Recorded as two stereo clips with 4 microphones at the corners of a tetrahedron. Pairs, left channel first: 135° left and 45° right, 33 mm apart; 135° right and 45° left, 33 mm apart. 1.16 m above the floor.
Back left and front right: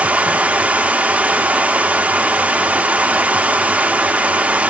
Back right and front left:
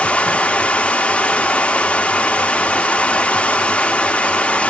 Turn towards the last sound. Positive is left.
turn(degrees=-85)